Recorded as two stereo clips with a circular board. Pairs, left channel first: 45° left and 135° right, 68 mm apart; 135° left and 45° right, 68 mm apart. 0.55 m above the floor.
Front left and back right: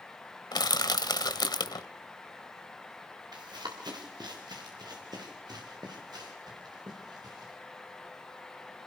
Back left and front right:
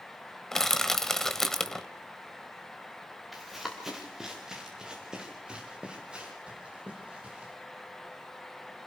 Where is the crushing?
50° left, 1.1 m.